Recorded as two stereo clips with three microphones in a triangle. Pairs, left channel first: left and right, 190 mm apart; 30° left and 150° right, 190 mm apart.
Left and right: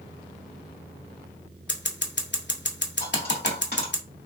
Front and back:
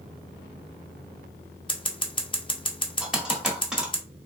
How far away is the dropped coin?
About 1.6 m.